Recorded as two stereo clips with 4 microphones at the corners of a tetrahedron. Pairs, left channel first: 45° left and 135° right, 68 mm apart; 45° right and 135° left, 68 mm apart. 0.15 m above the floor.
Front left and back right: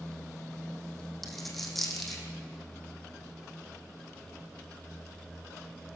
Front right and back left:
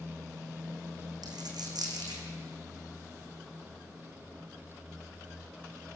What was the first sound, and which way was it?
A dropped coin, 135° left.